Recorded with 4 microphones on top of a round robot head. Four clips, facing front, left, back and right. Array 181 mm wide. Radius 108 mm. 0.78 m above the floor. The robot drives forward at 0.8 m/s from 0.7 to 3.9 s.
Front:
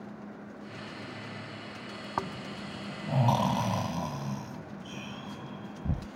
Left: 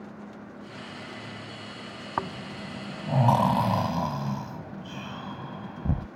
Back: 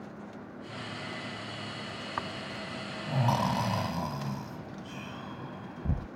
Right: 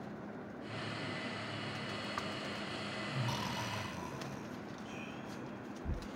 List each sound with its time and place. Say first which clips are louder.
2.2 s snoring: left 8 dB, front 3 dB; 60° left; by 6.1 s 80° left